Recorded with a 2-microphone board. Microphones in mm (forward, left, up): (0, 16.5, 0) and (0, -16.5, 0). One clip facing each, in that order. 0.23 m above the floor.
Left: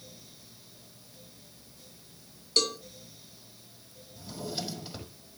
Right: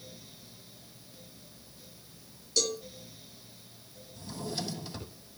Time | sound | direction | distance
2.6 | a cowbell | 50° left (ahead or behind) | 2.5 m
4.2 | a drawer | 15° left (ahead or behind) | 5 m